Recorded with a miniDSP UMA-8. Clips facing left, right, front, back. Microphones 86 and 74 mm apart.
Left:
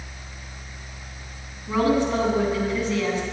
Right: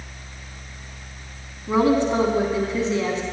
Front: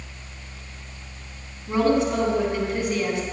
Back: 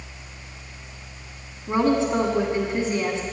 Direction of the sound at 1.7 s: 140° right.